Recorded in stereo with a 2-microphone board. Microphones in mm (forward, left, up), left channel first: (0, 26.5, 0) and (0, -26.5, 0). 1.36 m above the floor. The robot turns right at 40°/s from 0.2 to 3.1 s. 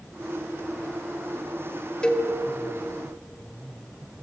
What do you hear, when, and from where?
2.0 s a cowbell: 15° left (ahead or behind), 2.5 m; by 2.3 s 10° left (ahead or behind), 2.5 m